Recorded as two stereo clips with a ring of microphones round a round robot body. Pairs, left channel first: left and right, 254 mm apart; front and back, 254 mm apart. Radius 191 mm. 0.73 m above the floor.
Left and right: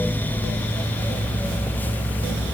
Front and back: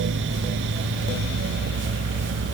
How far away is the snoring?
I don't hear snoring.